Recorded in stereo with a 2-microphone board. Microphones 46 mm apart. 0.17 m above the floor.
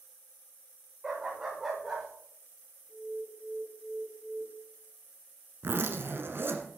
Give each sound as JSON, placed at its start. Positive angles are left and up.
{"t": 1.0, "sound": "a dog barking", "side_deg": -15, "distance_m": 6.0}
{"t": 2.9, "sound": "an alarm", "side_deg": -20, "distance_m": 4.5}
{"t": 5.6, "sound": "a zipper", "side_deg": -55, "distance_m": 1.6}